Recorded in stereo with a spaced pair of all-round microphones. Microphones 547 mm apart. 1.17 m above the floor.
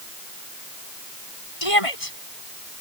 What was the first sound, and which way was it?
A shout, 65° left (ahead or behind).